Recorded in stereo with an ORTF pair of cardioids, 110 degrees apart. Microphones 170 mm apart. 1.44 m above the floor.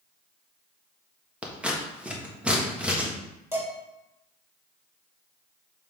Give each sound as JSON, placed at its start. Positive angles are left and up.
{"t": 1.4, "sound": "scissors", "azimuth_deg": -5, "distance_m": 1.4}
{"t": 3.5, "sound": "dishes clattering", "azimuth_deg": -15, "distance_m": 3.0}